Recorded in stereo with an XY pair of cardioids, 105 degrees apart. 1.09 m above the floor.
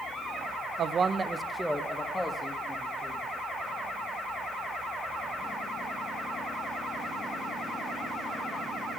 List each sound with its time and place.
0.8 s a man speaking: 55° right, 0.6 m; by 3.2 s 30° left, 2.0 m